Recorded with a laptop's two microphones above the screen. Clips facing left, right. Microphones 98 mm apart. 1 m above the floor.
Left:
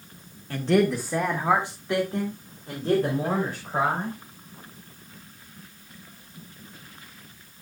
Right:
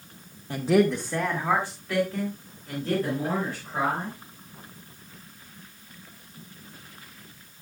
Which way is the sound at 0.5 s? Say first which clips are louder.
Even; 20° right (ahead or behind).